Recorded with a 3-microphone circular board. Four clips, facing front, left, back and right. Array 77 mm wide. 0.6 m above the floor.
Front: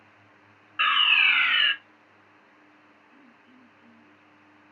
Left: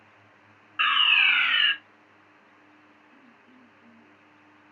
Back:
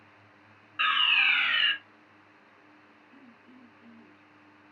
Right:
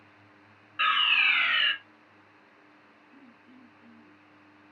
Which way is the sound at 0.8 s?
40° left.